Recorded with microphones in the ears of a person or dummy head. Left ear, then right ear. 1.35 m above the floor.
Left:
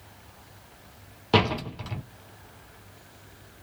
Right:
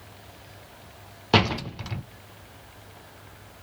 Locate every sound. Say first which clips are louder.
1.3 s a door slam: right 1 dB; 10° right (ahead or behind), 0.6 m